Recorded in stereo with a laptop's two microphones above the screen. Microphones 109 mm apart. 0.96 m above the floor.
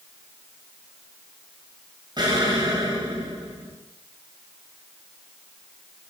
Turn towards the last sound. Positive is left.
turn(degrees=-45)  # may be behind; listen again after turning